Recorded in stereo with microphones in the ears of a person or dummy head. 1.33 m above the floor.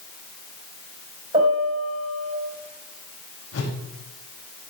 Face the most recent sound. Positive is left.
turn(degrees=80)